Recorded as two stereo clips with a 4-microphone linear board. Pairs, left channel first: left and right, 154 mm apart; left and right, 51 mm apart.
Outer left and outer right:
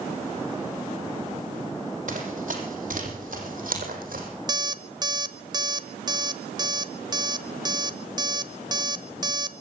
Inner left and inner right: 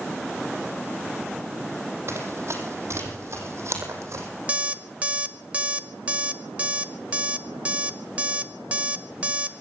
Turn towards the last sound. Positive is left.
turn(degrees=-25)  # may be behind; listen again after turning